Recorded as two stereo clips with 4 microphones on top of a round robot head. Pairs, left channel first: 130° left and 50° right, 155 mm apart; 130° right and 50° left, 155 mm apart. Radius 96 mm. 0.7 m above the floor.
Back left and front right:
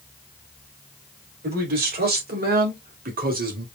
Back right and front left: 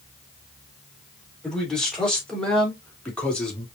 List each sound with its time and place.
1.4 s a man speaking: 40° right, 3.5 m; by 3.6 s 45° right, 2.5 m